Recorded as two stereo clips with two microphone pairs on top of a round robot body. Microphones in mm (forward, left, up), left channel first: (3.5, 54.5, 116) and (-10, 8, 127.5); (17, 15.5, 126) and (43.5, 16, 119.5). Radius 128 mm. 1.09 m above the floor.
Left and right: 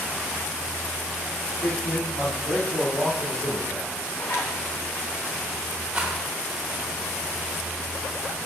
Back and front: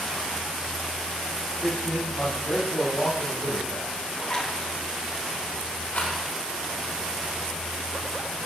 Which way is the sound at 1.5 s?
120° left.